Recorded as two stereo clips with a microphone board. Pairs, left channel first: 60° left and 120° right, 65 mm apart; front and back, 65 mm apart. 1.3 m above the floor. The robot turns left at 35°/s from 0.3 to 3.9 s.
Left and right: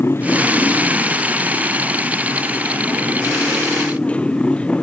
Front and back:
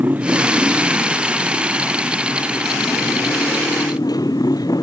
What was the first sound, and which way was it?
A motorcycle, 115° left.